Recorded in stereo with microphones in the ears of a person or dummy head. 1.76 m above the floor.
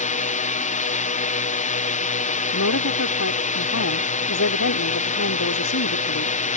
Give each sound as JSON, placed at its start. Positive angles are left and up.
{"t": 0.0, "sound": "a drone", "side_deg": 35}
{"t": 2.5, "sound": "a woman speaking", "side_deg": 85}